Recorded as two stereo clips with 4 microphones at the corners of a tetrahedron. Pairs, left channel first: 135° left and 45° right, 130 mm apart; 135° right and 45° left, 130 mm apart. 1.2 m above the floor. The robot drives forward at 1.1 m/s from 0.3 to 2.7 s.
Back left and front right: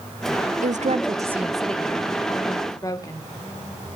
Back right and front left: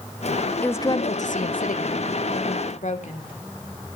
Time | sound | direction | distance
0.6 | a woman speaking | 55° right | 0.8 m